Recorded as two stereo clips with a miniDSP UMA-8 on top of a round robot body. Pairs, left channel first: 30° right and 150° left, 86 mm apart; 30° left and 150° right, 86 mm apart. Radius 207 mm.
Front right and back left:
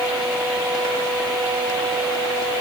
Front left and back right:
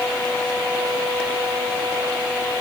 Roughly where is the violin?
No violin in this recording.